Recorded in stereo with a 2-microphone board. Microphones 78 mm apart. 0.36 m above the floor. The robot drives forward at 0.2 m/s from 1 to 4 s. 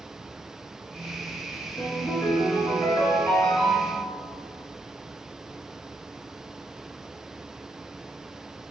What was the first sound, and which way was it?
A ringtone, 65° left (ahead or behind).